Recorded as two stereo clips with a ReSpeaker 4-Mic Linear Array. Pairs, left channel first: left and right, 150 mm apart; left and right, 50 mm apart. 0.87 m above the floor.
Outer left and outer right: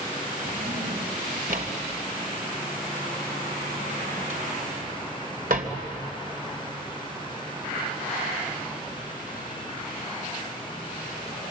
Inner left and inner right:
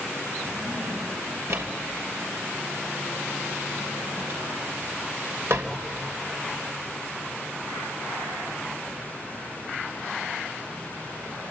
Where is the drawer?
65° right (ahead or behind), 2.5 m.